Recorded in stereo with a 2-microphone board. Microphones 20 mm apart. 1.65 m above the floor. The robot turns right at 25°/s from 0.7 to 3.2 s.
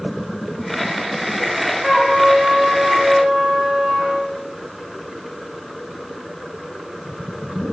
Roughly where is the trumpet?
Behind.